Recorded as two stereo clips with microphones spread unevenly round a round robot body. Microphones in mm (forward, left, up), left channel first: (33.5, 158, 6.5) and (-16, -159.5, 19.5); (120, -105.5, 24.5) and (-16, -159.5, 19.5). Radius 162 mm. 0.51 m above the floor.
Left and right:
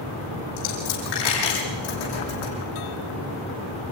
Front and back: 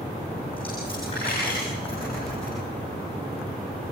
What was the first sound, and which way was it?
A dropped coin, 95° left.